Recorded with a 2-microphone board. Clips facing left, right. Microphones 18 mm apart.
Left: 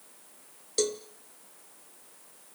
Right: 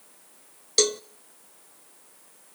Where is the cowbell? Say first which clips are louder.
Right 6 dB; 40° right (ahead or behind), 0.6 m.